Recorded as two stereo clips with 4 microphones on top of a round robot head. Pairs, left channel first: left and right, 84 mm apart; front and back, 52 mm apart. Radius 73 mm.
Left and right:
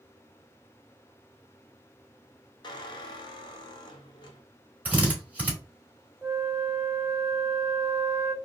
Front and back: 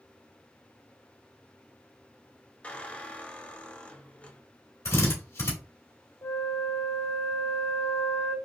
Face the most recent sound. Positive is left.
turn(degrees=-5)